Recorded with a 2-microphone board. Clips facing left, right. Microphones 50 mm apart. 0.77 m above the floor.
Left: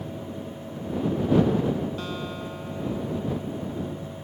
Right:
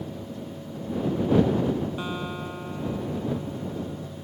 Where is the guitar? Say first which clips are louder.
Right 1 dB; 15° right (ahead or behind).